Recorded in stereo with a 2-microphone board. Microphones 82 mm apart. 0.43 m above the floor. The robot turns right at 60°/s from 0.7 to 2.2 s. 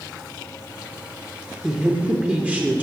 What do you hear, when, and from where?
1.6 s a woman speaking: centre (ahead or behind), 0.8 m; by 2.8 s 15° right (ahead or behind), 0.8 m